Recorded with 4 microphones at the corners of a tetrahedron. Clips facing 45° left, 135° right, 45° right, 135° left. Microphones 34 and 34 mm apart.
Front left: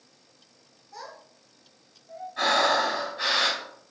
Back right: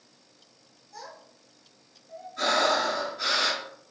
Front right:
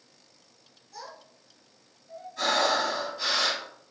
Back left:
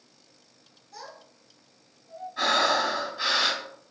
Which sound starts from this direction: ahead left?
A child speaking, at 0.9 s.